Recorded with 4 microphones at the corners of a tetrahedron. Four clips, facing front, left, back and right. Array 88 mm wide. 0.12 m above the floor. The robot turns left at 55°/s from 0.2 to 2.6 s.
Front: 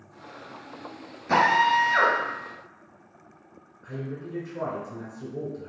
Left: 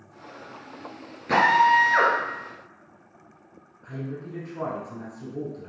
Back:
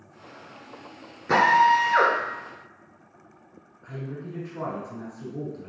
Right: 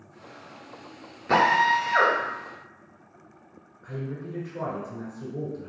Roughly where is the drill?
Behind.